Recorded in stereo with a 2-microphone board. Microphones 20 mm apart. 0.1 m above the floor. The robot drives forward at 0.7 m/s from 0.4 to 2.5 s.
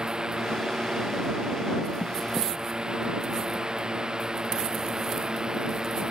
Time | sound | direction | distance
0.0 | a drone | 40° right (ahead or behind) | ?